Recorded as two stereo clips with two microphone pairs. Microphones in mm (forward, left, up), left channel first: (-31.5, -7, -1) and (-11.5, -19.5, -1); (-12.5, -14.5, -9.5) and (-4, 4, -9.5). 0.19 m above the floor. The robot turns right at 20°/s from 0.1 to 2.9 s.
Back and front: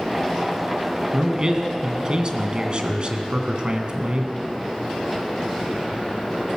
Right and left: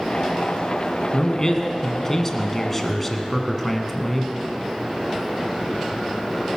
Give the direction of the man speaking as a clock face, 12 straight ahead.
3 o'clock.